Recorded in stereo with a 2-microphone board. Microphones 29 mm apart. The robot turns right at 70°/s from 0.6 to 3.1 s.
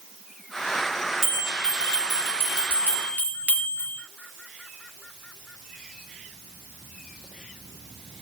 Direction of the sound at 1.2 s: 10° right.